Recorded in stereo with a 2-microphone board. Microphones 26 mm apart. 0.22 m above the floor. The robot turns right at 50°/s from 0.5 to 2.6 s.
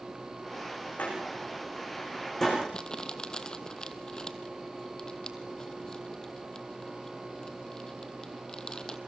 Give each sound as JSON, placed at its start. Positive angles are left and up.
{"t": 1.0, "sound": "a door slam", "side_deg": 85, "distance_m": 9.5}
{"t": 2.7, "sound": "crumpling", "side_deg": 30, "distance_m": 1.2}